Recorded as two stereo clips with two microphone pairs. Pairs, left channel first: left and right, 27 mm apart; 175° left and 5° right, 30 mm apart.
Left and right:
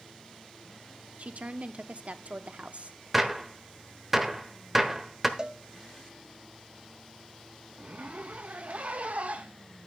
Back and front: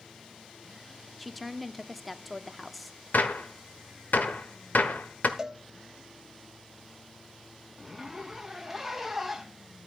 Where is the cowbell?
60° right, 0.8 m.